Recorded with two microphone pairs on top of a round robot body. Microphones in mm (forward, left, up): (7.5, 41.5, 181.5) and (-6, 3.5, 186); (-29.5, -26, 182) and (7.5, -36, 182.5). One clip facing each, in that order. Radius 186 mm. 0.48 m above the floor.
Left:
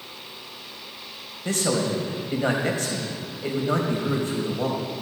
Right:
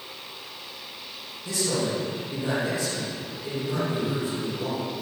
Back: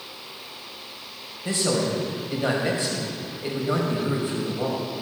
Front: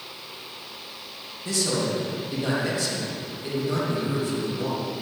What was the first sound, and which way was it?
A man speaking, 105° left.